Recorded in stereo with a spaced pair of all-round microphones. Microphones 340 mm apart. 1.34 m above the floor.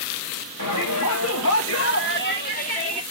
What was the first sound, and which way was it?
A shout, 65° left (ahead or behind).